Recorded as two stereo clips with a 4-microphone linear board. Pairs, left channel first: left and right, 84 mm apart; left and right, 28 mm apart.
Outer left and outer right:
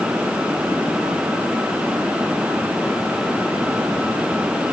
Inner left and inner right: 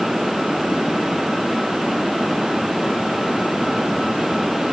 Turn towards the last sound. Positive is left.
No sound to turn to.